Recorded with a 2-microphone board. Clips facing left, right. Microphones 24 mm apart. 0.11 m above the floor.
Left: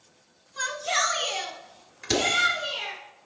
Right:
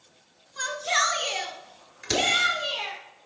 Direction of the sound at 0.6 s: 5° left (ahead or behind).